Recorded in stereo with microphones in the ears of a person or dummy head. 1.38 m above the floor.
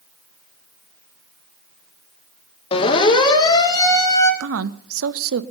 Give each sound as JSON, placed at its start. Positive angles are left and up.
{"t": 2.7, "sound": "a siren", "side_deg": 30, "distance_m": 2.0}
{"t": 4.4, "sound": "a woman speaking", "side_deg": -75, "distance_m": 0.9}